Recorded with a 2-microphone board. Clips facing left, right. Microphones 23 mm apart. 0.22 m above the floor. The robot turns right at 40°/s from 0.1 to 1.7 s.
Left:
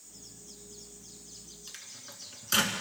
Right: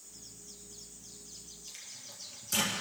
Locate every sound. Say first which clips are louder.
1.7 s a microwave: left 1 dB; 65° left (ahead or behind), 1.8 m; by 2.8 s 60° left (ahead or behind), 1.8 m